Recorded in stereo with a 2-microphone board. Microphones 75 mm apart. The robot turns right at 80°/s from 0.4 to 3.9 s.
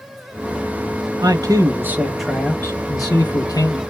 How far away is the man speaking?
About 0.9 m.